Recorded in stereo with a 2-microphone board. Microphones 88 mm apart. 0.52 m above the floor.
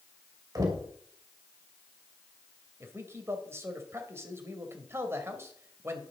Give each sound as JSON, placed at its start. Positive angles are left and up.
{"t": 0.6, "sound": "knocking", "side_deg": -45, "distance_m": 2.0}
{"t": 2.8, "sound": "a man speaking", "side_deg": -30, "distance_m": 2.0}